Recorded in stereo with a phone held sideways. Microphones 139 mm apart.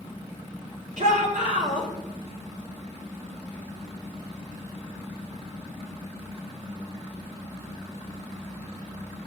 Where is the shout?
80° right, 4 m.